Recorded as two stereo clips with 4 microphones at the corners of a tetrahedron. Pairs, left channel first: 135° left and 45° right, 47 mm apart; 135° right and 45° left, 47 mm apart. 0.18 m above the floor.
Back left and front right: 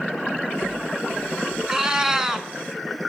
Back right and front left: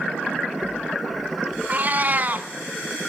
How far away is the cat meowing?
About 0.7 m.